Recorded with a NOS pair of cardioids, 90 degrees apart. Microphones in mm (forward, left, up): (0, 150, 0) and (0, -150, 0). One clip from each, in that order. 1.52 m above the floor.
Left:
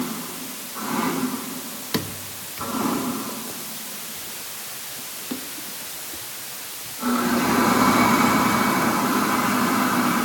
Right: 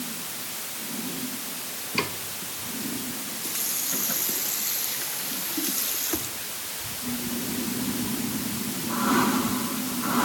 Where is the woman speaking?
No woman speaking in this recording.